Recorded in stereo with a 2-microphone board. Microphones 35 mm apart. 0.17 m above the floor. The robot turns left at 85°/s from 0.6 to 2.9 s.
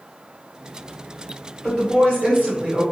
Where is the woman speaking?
15° right, 1.9 m; by 2.8 s 120° right, 1.9 m.